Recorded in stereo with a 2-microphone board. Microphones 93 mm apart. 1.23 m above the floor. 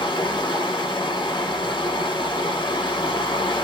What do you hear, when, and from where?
0.0 s running water: 55° left (ahead or behind), 1.3 m